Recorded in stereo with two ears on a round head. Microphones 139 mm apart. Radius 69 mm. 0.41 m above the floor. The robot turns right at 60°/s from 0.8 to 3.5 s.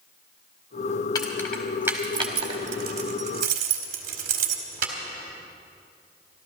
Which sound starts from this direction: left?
Keys jangling, at 1.1 s.